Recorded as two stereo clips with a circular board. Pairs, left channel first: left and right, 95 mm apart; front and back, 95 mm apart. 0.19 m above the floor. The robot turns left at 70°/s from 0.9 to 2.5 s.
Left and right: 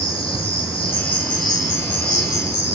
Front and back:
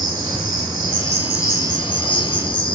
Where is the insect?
95° left, 4.5 m; by 2.8 s 15° right, 4.5 m.